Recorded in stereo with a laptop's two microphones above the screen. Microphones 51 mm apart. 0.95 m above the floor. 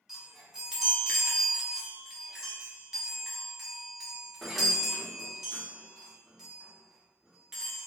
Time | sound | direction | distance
0.1 | a chime | 10° right (ahead or behind) | 0.7 m